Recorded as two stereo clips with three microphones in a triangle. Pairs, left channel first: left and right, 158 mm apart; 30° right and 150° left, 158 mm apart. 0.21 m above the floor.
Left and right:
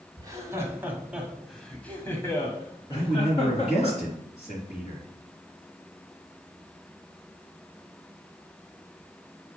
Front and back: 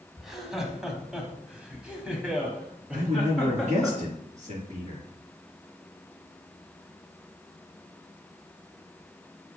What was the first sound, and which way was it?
Laughter, 125° right.